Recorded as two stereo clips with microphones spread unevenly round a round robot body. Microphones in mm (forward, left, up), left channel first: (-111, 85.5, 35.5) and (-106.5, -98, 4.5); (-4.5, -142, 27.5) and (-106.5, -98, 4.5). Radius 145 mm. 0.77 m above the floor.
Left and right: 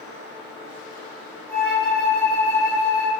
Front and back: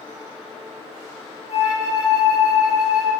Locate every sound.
1.5 s a flute: 15° left, 0.5 m